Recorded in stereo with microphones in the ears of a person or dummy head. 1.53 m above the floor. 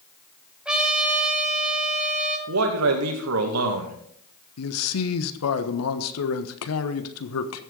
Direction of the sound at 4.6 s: 85° left.